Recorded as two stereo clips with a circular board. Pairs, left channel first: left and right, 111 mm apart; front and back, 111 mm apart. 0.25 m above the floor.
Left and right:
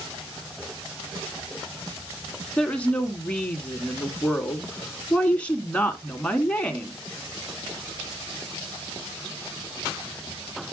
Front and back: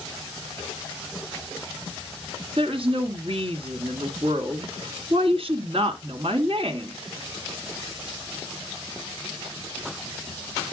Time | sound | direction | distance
2.6 | a woman speaking | 165° left | 2.5 m